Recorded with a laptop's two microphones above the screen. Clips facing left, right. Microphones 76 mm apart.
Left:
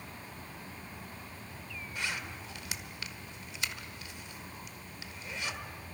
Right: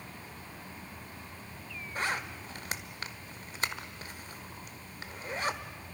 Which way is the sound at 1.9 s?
45° right (ahead or behind).